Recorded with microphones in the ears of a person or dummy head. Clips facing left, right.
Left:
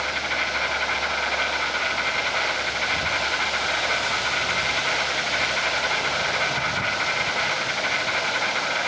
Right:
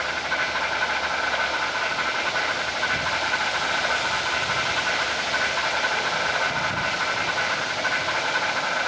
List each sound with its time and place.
0.0 s an insect: 30° left (ahead or behind), 8.5 m